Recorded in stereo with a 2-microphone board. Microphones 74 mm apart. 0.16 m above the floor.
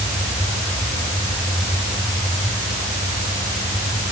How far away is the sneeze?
No sneeze in this recording.